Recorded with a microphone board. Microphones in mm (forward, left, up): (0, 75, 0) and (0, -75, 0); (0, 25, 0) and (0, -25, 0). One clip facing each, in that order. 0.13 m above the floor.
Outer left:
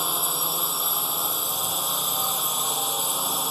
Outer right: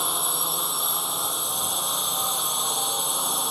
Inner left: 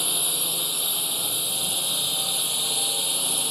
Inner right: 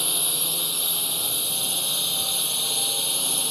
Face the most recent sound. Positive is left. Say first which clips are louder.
# even, even
turn(degrees=0)  # may be behind; listen again after turning